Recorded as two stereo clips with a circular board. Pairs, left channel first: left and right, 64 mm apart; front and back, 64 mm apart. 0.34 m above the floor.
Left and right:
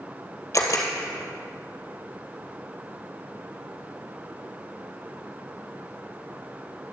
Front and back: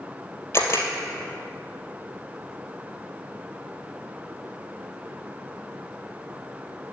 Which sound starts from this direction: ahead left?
A camera shutter, at 0.5 s.